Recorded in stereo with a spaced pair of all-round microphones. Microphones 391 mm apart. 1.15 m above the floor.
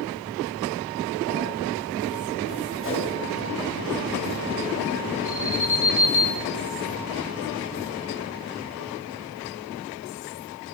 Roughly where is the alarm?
Right.